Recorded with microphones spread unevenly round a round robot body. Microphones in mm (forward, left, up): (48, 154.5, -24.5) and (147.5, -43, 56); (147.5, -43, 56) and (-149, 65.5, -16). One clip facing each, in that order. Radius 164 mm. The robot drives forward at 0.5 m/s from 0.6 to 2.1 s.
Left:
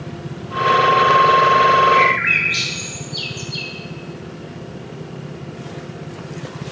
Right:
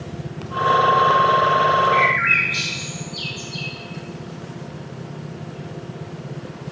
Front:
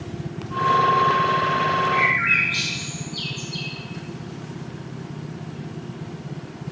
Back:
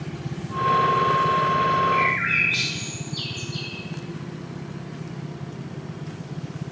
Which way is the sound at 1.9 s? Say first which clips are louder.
Left 3 dB, even; 70° left.